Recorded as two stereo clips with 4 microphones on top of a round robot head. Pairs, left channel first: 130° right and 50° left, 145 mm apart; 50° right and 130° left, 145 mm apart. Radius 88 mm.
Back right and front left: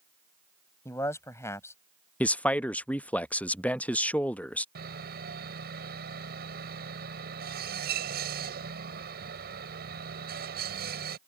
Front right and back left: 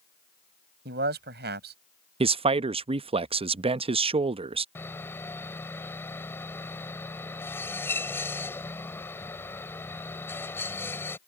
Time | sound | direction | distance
0.8 | a man speaking | 155° left | ?
2.2 | a man speaking | 150° left | ?
4.8 | sawing | 30° left | ?